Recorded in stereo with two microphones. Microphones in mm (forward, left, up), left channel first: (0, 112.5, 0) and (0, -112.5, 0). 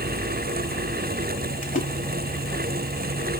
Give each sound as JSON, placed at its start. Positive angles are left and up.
{"t": 1.6, "sound": "a splash", "side_deg": 40, "distance_m": 1.0}